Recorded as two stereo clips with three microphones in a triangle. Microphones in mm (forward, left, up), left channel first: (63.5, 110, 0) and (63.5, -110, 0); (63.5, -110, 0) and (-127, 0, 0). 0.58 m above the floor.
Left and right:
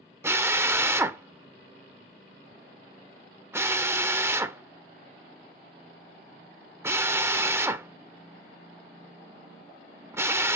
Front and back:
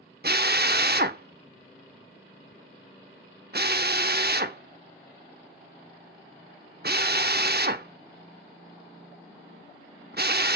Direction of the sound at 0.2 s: 165° right.